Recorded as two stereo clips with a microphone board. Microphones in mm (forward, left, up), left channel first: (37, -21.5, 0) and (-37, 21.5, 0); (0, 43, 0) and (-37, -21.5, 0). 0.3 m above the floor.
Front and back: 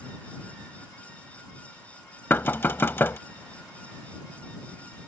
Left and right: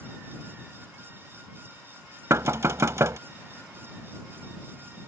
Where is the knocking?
90° right.